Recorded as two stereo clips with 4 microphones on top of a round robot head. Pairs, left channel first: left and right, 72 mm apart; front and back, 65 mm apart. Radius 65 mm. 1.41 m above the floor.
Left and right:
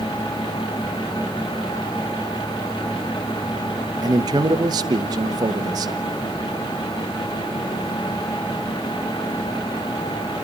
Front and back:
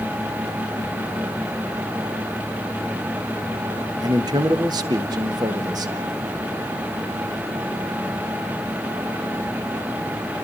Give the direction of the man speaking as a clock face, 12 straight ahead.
5 o'clock.